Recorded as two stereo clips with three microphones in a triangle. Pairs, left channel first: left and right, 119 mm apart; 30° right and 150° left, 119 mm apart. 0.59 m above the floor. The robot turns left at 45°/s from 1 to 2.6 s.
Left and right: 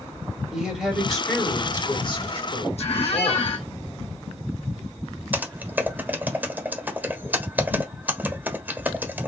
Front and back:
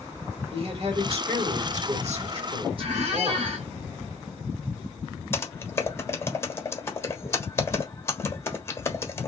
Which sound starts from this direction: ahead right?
Typing on a keyboard, at 5.3 s.